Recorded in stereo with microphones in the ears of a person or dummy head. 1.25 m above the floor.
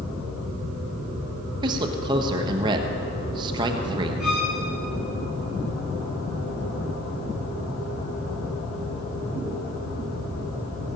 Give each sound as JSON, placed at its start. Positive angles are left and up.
{"t": 1.6, "sound": "a man speaking", "side_deg": -25, "distance_m": 1.3}
{"t": 4.2, "sound": "a violin", "side_deg": -5, "distance_m": 5.0}